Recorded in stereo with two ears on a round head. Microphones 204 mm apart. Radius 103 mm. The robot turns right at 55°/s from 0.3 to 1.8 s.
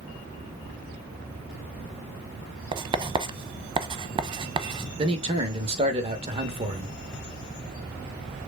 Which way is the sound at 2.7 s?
25° right (ahead or behind).